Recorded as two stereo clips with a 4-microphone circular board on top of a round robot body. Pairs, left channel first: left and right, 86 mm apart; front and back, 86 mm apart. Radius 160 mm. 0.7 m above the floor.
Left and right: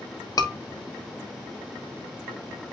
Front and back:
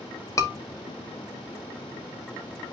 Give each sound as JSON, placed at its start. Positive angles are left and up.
{"t": 0.4, "sound": "a scream", "azimuth_deg": 45, "distance_m": 3.0}